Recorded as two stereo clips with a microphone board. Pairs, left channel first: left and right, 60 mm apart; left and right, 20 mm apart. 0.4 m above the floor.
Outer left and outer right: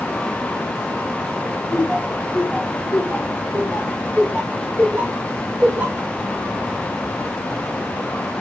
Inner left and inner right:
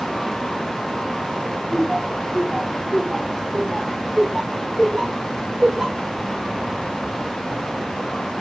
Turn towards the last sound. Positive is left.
turn(degrees=-35)  # may be behind; listen again after turning